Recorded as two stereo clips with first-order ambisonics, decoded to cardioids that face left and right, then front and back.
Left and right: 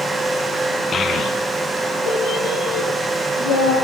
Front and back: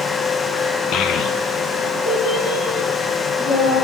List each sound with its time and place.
0.9 s a child speaking: 30° left, 1.1 m; by 3.7 s 60° left, 5 m